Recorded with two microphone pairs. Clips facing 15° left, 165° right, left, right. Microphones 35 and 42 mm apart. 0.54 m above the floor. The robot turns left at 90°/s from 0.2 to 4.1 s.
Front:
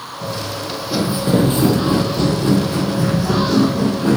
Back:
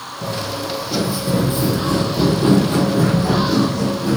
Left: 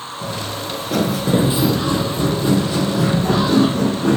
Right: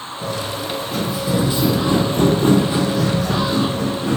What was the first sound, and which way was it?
Footsteps, 165° left.